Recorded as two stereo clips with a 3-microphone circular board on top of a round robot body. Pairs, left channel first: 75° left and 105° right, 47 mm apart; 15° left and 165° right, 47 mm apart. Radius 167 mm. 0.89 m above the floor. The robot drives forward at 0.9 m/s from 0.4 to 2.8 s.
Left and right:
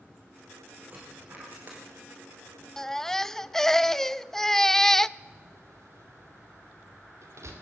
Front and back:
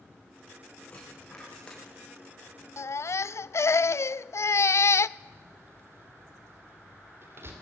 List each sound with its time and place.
0.9 s a dropped coin: 55° right, 6 m; by 1.8 s 60° right, 5.5 m
2.8 s a baby crying: 10° right, 0.5 m
5.2 s a door slam: 125° right, 2.5 m